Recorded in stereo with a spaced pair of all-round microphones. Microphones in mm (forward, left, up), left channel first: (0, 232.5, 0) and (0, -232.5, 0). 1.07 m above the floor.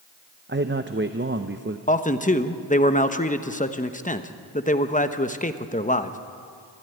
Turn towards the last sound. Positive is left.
turn(degrees=15)  # may be behind; listen again after turning